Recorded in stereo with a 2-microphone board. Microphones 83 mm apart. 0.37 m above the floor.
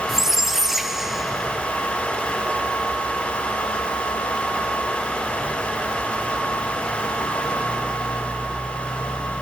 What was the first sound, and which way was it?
A squeak, 5° right (ahead or behind).